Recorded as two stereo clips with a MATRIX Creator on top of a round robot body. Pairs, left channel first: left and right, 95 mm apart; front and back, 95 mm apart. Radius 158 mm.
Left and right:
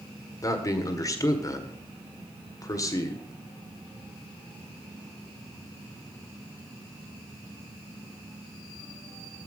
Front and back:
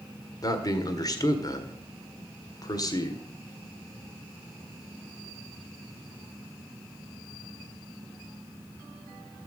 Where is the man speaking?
40° left, 1.8 m.